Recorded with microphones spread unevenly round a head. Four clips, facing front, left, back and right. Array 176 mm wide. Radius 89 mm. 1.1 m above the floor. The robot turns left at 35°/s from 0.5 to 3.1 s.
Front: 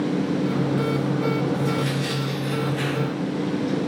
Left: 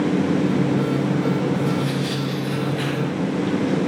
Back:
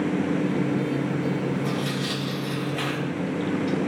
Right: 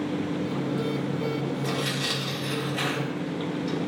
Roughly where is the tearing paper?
Right.